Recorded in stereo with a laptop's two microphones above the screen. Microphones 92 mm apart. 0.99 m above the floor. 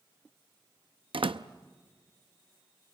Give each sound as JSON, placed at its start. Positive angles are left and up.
{"t": 1.1, "sound": "a door slam", "side_deg": -70, "distance_m": 0.6}